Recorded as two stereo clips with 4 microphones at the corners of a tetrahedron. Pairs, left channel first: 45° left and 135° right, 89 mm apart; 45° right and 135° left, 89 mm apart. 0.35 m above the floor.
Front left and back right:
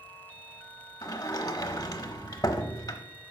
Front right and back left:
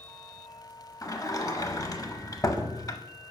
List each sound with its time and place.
1.0 s a sliding door: straight ahead, 0.9 m